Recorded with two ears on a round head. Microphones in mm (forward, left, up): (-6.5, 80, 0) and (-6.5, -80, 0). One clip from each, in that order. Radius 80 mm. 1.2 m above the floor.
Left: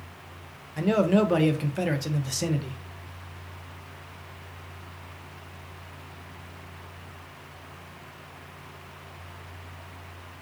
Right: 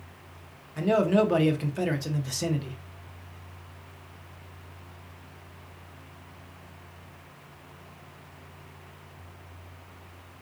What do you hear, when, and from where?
0.8 s a man speaking: 5° left (ahead or behind), 0.5 m